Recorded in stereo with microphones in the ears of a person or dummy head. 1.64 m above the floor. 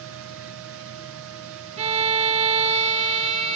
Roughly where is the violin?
Right.